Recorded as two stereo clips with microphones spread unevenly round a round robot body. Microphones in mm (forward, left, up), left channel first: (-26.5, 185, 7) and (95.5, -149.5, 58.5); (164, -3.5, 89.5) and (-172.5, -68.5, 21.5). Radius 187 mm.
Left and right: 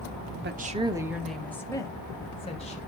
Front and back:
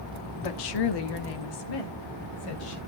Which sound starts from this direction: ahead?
A woman speaking, at 0.4 s.